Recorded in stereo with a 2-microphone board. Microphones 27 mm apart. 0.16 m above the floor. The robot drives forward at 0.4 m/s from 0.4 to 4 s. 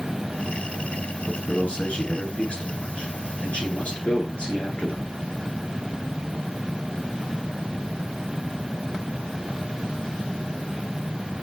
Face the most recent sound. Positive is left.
turn(degrees=45)  # may be behind; listen again after turning